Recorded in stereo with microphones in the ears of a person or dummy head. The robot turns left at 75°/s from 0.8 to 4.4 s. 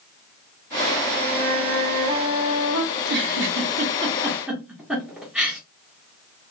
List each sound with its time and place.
1.1 s a flute: 35° left, 2 m; by 2.8 s 95° right, 2 m
2.9 s a giggle: 55° right (ahead or behind), 1.1 m; by 5.6 s 5° right (ahead or behind), 1.1 m